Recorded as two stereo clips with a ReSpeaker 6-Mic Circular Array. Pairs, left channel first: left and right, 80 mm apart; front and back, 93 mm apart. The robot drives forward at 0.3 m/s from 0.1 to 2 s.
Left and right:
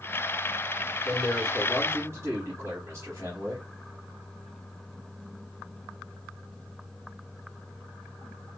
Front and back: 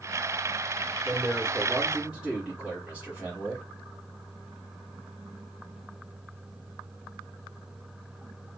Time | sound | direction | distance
1.1 | a man speaking | 95° right | 1.4 m